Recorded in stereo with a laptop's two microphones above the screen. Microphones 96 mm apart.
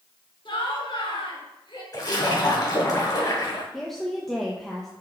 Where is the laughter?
65° left (ahead or behind), 4 m.